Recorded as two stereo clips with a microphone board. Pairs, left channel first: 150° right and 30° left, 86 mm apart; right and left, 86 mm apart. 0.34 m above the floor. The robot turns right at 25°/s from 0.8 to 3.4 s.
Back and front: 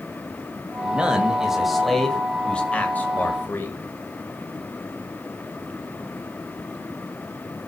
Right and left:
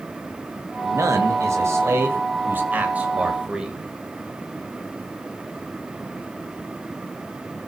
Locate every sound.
0.8 s a man speaking: 100° left, 1.7 m; by 3.8 s 160° left, 1.7 m